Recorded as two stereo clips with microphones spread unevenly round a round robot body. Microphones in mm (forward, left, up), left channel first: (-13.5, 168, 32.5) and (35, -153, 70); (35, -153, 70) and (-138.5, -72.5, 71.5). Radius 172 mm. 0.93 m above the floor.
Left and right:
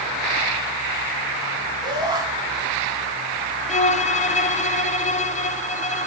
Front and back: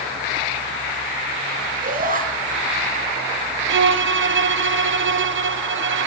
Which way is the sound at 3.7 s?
165° left.